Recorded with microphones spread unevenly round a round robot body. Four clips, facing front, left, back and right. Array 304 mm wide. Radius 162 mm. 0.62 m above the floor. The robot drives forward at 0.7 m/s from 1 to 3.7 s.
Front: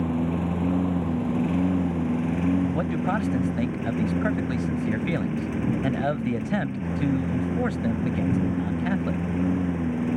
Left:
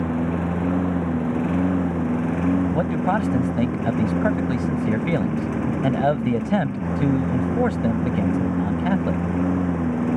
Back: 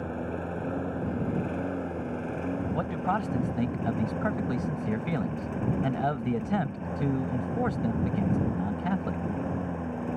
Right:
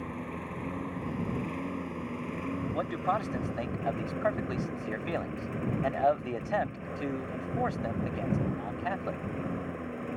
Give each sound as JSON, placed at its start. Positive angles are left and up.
{"t": 0.0, "sound": "a lawn mower", "azimuth_deg": 60}
{"t": 2.7, "sound": "a man speaking", "azimuth_deg": 80}